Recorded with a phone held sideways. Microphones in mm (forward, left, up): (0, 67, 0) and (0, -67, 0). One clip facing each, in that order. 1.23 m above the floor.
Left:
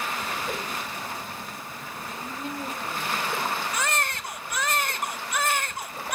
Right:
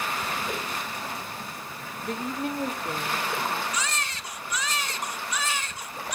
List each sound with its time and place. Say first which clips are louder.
0.5 s a whoosh: even; 5° left (ahead or behind), 5.5 m
2.0 s a woman speaking: right 6 dB; 70° right (ahead or behind), 1.8 m
3.7 s a baby crying: left 4 dB; 60° left (ahead or behind), 0.9 m